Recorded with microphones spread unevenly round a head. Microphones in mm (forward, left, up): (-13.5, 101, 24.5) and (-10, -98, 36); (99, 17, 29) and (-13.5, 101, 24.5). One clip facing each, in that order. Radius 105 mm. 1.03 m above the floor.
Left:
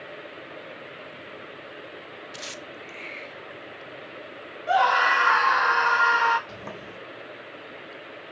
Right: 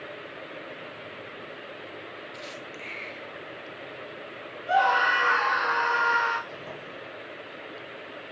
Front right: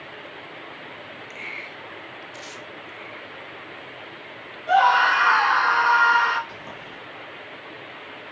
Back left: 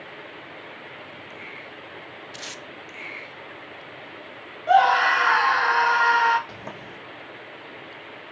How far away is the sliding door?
About 1.7 m.